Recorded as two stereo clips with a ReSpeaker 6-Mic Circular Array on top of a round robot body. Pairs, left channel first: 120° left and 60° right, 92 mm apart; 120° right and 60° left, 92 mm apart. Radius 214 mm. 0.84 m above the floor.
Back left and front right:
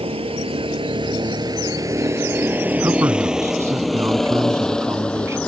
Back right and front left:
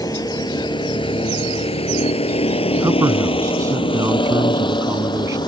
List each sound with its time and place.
0.0 s a vehicle: 70° right; by 5.5 s 165° right
2.8 s a man speaking: straight ahead